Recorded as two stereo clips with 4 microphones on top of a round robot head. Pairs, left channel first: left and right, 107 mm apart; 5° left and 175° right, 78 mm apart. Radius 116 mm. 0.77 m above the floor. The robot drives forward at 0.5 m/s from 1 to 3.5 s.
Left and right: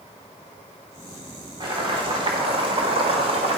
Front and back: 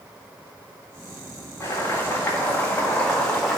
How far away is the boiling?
About 2 m.